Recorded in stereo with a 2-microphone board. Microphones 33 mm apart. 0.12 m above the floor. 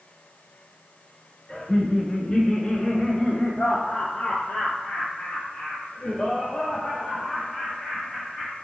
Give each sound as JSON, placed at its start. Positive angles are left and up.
{"t": 1.5, "sound": "laughter", "side_deg": 20, "distance_m": 1.2}